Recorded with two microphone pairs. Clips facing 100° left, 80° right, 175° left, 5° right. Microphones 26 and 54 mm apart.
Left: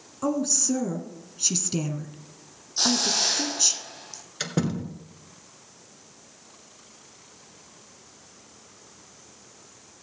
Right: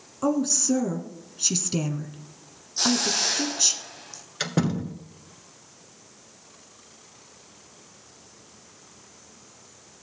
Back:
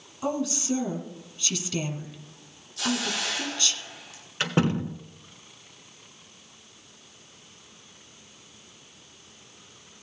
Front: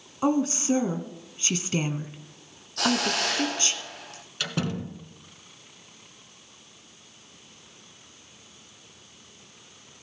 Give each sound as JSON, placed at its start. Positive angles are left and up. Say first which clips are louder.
{"t": 0.2, "sound": "a woman speaking", "louder": "right 2 dB, front 5 dB", "azimuth_deg": -5, "distance_m": 1.3}
{"t": 2.8, "sound": "a hiss", "louder": "even, front 4 dB", "azimuth_deg": 25, "distance_m": 1.8}
{"t": 4.4, "sound": "a door slam", "louder": "right 2 dB, back 5 dB", "azimuth_deg": -155, "distance_m": 1.2}